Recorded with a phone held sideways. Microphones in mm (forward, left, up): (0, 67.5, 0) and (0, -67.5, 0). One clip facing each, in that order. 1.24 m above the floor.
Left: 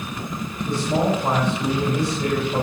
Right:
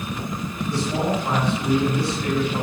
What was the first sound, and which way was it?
A man speaking, 50° left (ahead or behind).